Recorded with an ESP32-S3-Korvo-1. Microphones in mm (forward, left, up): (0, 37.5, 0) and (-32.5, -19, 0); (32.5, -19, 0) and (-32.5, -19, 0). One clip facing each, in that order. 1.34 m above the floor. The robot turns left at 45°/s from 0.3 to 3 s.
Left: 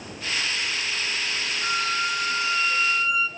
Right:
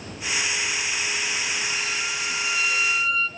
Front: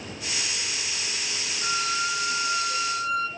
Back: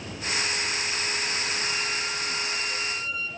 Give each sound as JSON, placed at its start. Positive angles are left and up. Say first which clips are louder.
{"t": 1.6, "sound": "a violin", "louder": "left 3 dB, front 3 dB", "azimuth_deg": 35, "distance_m": 1.1}